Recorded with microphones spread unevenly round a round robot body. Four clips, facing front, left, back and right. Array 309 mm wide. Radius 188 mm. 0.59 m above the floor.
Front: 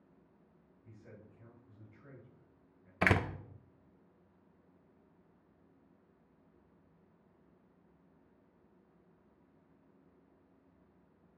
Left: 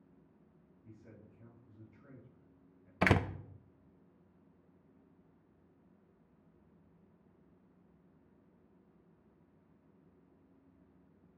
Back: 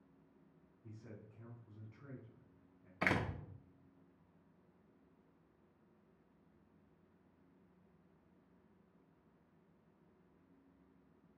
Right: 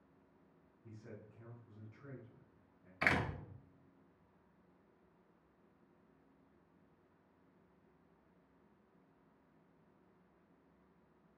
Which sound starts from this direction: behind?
A man speaking, at 0.8 s.